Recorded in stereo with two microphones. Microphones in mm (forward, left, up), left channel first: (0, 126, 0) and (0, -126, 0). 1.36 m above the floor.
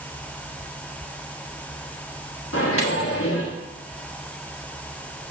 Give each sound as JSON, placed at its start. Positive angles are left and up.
{"t": 2.5, "sound": "a microwave", "side_deg": 60, "distance_m": 1.3}